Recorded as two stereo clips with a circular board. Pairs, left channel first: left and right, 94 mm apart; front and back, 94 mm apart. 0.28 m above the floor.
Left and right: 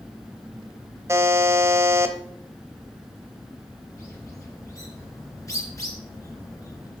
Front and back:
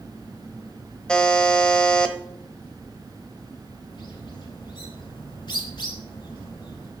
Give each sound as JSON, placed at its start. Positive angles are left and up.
{"t": 1.1, "sound": "a buzzer", "azimuth_deg": -70, "distance_m": 1.0}
{"t": 3.9, "sound": "a bird", "azimuth_deg": 35, "distance_m": 2.5}